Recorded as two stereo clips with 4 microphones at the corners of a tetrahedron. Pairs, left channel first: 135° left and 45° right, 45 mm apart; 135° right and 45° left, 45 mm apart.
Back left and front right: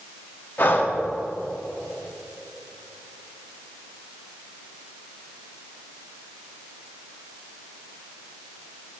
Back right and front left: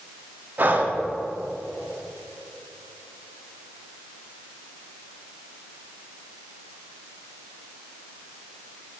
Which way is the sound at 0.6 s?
90° left.